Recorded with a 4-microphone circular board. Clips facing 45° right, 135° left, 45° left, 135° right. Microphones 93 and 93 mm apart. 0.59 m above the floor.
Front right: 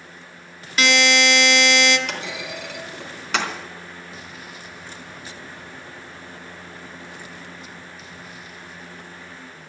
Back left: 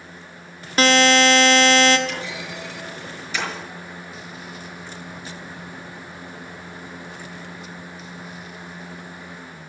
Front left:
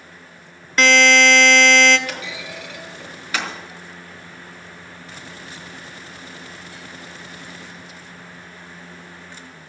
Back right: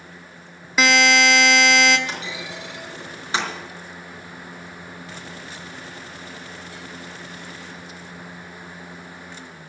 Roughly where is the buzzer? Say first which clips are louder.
Back left 4 dB, front left 2 dB; behind left.